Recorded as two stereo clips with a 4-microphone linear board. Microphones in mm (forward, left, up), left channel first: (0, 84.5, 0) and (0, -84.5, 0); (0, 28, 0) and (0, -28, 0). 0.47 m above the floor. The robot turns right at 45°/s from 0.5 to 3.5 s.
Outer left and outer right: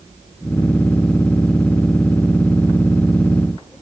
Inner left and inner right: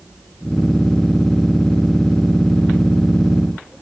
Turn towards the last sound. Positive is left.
No sound to turn to.